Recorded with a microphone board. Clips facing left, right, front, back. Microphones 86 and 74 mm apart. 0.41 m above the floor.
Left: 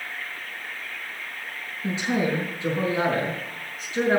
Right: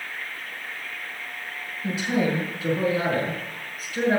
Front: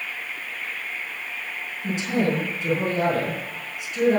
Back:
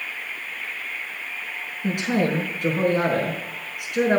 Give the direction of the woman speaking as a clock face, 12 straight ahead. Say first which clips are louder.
Even, back 1 dB; 7 o'clock.